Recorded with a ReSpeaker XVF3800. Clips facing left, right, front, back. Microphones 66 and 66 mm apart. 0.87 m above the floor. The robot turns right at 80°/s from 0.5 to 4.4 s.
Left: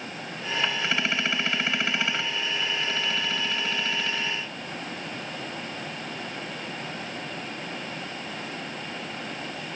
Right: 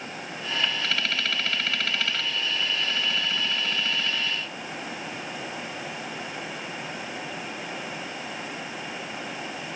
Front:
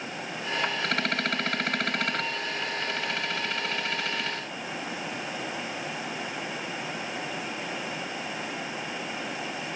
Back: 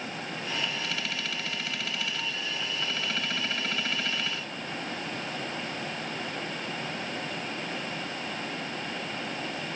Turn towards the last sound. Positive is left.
No sound to turn to.